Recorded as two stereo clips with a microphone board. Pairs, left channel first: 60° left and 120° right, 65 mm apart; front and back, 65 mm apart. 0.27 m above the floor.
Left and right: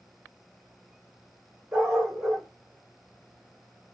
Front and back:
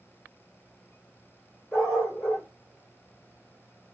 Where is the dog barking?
55° right, 4.5 m.